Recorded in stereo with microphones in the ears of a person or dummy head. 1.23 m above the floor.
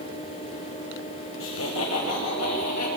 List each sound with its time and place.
1.4 s laughter: 60° left (ahead or behind), 1.4 m; by 2.9 s 80° left, 2.5 m